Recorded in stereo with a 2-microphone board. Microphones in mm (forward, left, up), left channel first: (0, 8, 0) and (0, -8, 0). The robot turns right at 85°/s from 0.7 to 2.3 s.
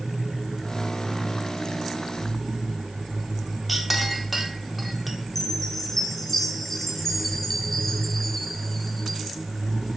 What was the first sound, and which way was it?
A clink, 5° right (ahead or behind).